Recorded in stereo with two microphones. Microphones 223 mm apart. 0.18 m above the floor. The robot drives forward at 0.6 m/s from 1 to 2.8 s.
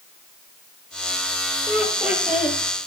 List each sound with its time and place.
1.7 s laughter: 5° right (ahead or behind), 4 m